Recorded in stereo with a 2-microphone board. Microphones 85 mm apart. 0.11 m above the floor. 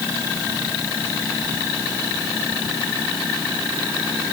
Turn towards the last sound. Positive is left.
No sound to turn to.